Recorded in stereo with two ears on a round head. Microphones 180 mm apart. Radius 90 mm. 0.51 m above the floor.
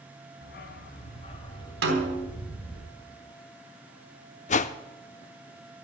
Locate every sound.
0.4 s a dog barking: 60° left (ahead or behind), 1.8 m; by 2.8 s 5° left (ahead or behind), 3.5 m
1.8 s a snare drum: 60° right (ahead or behind), 3.5 m
4.5 s a whoosh: 40° left (ahead or behind), 0.7 m